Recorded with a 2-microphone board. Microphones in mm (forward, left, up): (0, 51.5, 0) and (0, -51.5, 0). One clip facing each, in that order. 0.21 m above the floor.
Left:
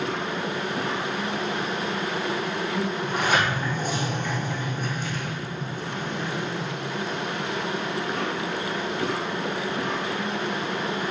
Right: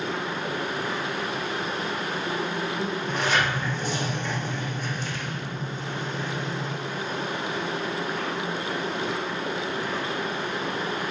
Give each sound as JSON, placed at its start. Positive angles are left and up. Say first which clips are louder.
{"t": 0.0, "sound": "an insect", "louder": "left 2 dB", "side_deg": 75, "distance_m": 1.5}
{"t": 3.0, "sound": "a sliding door", "louder": "left 1 dB", "side_deg": 50, "distance_m": 2.5}